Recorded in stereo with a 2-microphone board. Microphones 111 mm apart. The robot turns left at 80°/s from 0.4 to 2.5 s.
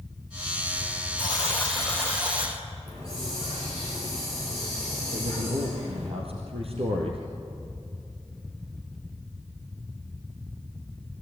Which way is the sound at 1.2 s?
50° left.